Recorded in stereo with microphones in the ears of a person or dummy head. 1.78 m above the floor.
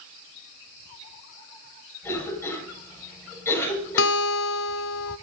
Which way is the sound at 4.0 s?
65° left (ahead or behind).